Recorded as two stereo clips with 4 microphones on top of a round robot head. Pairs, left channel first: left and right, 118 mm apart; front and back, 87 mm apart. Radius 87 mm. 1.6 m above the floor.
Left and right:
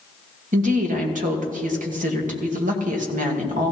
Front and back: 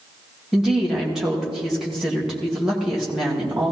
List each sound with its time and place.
0.5 s a woman speaking: 95° right, 2 m